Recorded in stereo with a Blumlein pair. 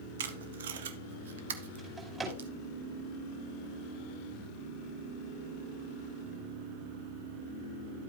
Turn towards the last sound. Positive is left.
turn(degrees=-15)